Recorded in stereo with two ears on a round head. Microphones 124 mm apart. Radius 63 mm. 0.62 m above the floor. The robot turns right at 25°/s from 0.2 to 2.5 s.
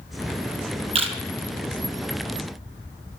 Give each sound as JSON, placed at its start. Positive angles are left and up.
{"t": 0.9, "sound": "a camera shutter", "side_deg": -45, "distance_m": 3.0}